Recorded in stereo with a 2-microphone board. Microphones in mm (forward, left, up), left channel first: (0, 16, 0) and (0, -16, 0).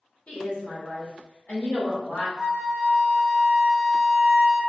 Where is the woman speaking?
40° left (ahead or behind), 1.3 m.